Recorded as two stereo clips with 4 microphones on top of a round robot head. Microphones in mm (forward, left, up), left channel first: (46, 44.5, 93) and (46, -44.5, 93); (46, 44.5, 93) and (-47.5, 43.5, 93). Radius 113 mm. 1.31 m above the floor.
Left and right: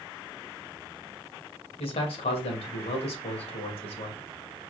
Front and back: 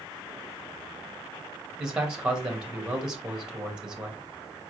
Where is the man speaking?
100° left, 1.9 m.